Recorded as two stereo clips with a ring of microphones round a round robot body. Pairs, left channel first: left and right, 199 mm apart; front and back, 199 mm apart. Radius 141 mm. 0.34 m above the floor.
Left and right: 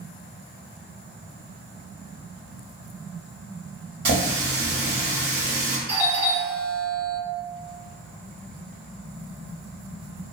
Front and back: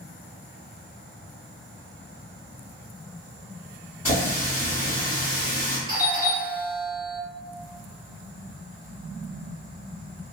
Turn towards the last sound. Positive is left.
turn(degrees=-160)